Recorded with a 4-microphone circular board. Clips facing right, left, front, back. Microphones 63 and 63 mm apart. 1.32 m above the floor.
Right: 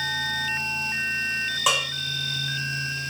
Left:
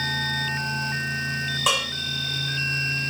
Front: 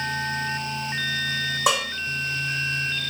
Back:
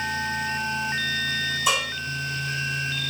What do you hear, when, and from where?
1.7 s dishes clattering: straight ahead, 1.0 m